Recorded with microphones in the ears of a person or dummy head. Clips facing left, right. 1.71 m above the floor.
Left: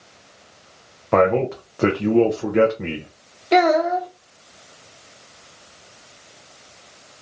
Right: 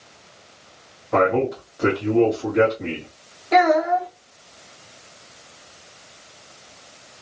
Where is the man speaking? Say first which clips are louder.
Left 2 dB; 70° left (ahead or behind), 0.6 m.